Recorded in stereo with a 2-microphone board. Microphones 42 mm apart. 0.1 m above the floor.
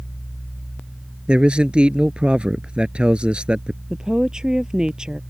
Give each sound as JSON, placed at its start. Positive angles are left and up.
{"t": 1.3, "sound": "a man speaking", "side_deg": -25}
{"t": 3.9, "sound": "a woman speaking", "side_deg": -15}